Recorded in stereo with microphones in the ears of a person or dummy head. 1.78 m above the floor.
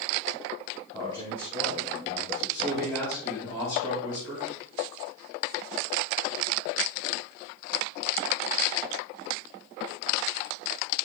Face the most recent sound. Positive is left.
turn(degrees=80)